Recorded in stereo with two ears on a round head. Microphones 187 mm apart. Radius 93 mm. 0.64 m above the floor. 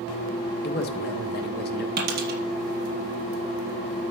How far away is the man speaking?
About 1.9 m.